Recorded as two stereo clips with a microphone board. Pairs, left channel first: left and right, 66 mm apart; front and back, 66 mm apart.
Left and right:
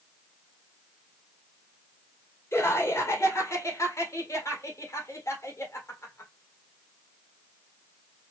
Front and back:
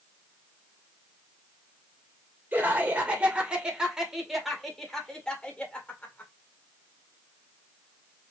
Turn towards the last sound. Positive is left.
turn(degrees=55)